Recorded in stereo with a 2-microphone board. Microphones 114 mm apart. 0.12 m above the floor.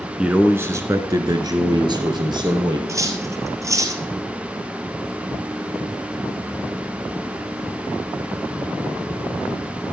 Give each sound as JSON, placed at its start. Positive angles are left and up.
{"t": 0.2, "sound": "a man speaking", "side_deg": -10, "distance_m": 1.1}
{"t": 2.9, "sound": "cutlery clinking", "side_deg": -25, "distance_m": 1.7}